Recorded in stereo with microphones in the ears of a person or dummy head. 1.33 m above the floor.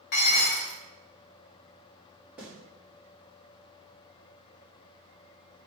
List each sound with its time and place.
0.1 s dishes clattering: 55° left (ahead or behind), 0.8 m
2.4 s a snare drum: 10° right (ahead or behind), 1.5 m